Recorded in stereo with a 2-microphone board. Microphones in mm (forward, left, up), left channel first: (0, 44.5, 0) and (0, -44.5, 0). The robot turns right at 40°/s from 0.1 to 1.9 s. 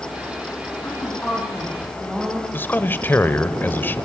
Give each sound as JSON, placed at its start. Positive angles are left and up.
{"t": 0.8, "sound": "a woman speaking", "azimuth_deg": 145, "distance_m": 8.5}
{"t": 2.5, "sound": "a man speaking", "side_deg": 20, "distance_m": 1.2}